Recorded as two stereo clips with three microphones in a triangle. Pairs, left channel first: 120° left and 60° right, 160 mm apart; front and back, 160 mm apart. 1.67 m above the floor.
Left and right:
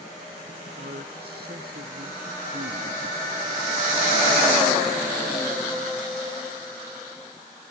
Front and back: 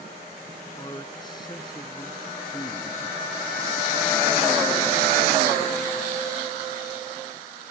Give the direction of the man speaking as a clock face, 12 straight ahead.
2 o'clock.